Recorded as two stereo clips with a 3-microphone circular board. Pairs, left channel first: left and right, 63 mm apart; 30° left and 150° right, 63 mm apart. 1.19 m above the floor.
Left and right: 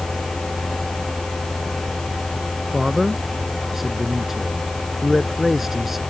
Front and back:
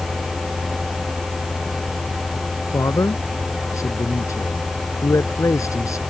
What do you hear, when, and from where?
2.7 s a man speaking: 5° right